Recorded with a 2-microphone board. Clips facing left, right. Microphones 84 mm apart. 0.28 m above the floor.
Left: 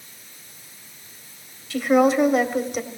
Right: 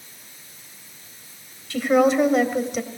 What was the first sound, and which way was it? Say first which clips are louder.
A woman speaking: even; 5° left (ahead or behind).